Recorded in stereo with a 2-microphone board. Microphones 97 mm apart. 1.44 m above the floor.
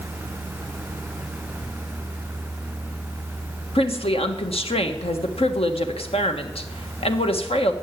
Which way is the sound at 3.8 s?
75° left (ahead or behind).